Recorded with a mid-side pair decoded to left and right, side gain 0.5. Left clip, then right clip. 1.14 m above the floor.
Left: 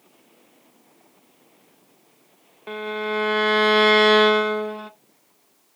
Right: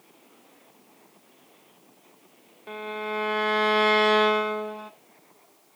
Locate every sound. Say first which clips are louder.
2.7 s a violin: left 5 dB; 40° left, 0.9 m